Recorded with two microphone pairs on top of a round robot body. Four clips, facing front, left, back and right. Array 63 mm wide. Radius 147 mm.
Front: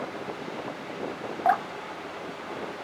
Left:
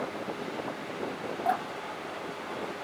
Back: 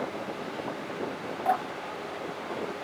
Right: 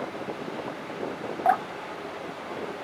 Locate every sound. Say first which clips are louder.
1.4 s dripping: right 6 dB, front 4 dB; 50° right, 0.9 m